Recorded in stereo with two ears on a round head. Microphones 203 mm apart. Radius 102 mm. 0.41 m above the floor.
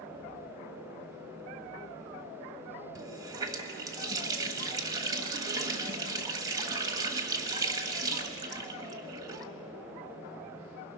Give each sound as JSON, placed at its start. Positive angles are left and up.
{"t": 3.0, "sound": "a running tap", "side_deg": -15, "distance_m": 1.2}